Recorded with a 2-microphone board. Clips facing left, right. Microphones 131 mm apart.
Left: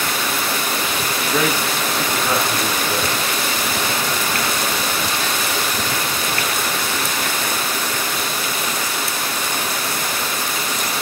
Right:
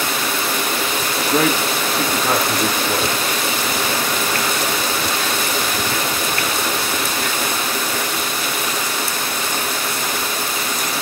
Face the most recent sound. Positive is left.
turn(degrees=-40)  # may be behind; listen again after turning